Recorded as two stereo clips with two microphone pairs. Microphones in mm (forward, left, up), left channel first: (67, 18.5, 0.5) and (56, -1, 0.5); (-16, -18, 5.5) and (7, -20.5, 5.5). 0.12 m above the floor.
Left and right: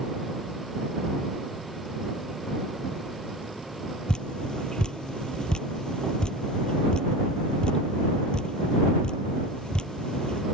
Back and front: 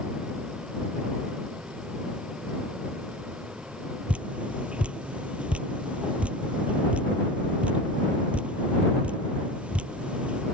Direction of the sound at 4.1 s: 10° left.